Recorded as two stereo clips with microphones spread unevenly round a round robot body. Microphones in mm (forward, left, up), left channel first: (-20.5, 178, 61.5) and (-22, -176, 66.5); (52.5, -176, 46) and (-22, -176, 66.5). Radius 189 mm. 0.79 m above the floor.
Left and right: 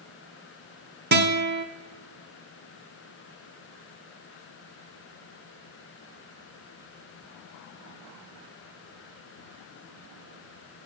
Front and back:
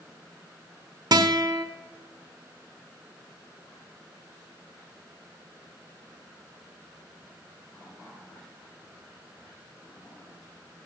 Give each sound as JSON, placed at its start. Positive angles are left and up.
{"t": 1.1, "sound": "a guitar", "azimuth_deg": -155, "distance_m": 1.2}